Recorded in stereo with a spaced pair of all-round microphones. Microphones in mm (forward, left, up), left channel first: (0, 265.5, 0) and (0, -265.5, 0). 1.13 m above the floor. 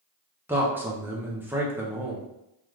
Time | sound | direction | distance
0.5 | a man speaking | 5° right (ahead or behind) | 0.6 m